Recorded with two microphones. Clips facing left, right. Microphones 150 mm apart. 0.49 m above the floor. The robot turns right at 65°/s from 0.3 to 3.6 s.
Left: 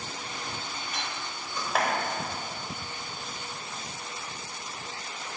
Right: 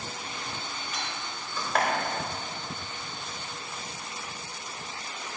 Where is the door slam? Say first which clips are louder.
Even; 55° left (ahead or behind), 1.2 m; by 5.4 s 60° right (ahead or behind), 1.2 m.